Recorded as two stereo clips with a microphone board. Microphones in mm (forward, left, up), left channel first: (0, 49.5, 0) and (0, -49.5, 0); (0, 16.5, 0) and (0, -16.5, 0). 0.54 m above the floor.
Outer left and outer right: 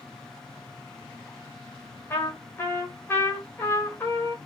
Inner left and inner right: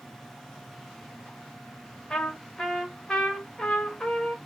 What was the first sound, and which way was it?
A trumpet, 20° left (ahead or behind).